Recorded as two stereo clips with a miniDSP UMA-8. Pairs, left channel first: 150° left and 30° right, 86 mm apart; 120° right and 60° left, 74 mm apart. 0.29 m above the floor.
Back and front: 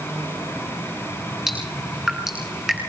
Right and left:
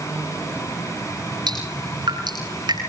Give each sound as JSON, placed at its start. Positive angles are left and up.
{"t": 1.5, "sound": "dripping", "azimuth_deg": 55, "distance_m": 9.5}